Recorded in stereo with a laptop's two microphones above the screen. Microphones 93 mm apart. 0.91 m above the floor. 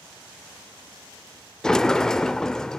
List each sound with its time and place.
1.6 s a sliding door: 5° left (ahead or behind), 0.6 m